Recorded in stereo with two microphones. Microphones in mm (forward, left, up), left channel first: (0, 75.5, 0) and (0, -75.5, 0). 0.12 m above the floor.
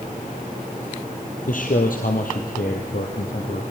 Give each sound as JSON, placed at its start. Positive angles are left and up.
{"t": 1.5, "sound": "a man speaking", "side_deg": 65, "distance_m": 2.5}